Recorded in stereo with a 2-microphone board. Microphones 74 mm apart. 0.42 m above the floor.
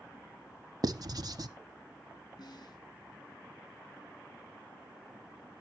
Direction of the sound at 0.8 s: 60° right (ahead or behind).